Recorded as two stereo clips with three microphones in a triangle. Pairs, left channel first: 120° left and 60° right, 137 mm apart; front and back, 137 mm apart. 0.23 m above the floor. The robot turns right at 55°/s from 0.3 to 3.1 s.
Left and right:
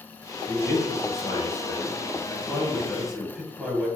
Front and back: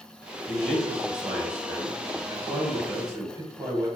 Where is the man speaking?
70° left, 1.1 m; by 3.9 s 145° right, 1.1 m.